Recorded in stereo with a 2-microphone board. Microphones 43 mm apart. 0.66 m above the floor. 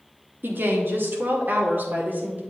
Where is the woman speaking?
60° right (ahead or behind), 1.5 m; by 2.4 s 45° right (ahead or behind), 2 m.